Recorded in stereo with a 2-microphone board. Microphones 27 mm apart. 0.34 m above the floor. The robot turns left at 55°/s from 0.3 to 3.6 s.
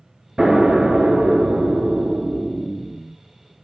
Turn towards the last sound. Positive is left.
turn(degrees=160)